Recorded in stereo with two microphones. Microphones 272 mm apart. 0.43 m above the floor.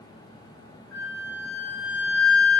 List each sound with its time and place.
0.9 s a flute: 5° left (ahead or behind), 1.6 m